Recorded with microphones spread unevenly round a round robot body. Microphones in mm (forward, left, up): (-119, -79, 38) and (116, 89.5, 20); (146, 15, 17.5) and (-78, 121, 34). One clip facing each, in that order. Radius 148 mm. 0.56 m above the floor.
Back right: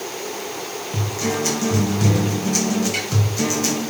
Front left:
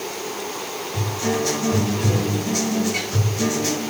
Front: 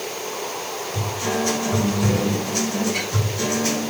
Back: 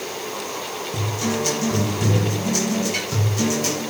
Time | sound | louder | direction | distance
0.9 | a guitar | front left 1 dB, back 1 dB | 175° right | 3.5 m